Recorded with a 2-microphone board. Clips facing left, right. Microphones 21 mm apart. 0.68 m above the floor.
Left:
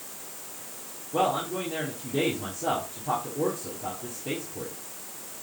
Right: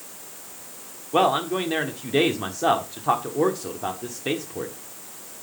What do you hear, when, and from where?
1.1 s a man speaking: 65° right (ahead or behind), 1.4 m